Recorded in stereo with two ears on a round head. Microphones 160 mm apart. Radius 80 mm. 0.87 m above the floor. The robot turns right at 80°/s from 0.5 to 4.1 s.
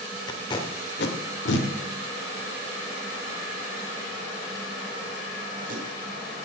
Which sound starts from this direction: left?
Tape being pulled, at 0.3 s.